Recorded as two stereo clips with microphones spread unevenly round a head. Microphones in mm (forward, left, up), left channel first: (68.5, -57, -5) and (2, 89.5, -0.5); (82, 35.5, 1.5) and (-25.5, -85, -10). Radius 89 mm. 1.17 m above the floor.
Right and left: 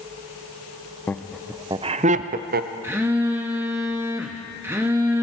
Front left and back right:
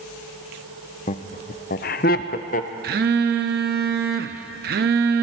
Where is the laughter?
10° left, 0.6 m; by 2.7 s 100° left, 0.8 m.